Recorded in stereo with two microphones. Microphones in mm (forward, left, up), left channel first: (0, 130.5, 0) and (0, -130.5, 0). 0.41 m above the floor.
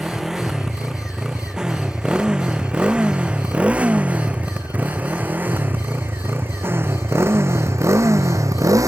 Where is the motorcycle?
Centre (ahead or behind); by 8.9 s 10° right (ahead or behind).